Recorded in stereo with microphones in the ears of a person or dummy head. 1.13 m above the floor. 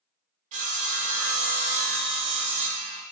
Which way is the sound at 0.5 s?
40° right (ahead or behind).